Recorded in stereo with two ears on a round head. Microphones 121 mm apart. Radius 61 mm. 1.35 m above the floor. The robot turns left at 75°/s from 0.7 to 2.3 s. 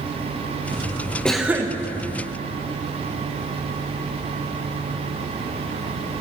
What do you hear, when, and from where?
1.2 s a cough: 5° left, 0.8 m; by 1.8 s 30° right, 0.8 m